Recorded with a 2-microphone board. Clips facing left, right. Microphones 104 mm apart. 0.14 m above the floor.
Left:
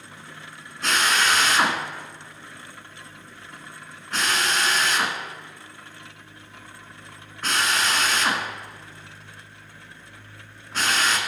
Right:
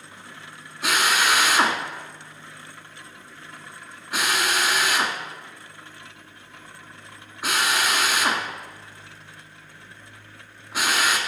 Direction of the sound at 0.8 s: 10° right (ahead or behind).